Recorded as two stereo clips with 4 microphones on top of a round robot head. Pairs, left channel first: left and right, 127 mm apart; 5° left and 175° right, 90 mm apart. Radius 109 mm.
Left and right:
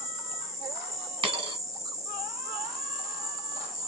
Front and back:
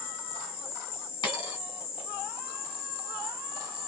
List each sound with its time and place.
0.0 s an insect: 25° right, 1.3 m
1.2 s a dropped coin: 45° right, 1.6 m